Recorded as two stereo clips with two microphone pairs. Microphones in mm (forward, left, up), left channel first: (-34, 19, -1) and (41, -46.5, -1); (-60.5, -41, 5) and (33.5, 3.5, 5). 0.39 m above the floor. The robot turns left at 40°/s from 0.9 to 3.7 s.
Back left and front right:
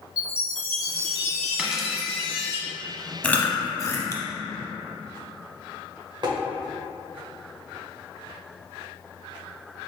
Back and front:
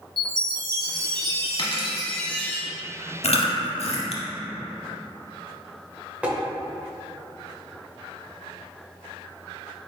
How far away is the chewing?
About 0.6 m.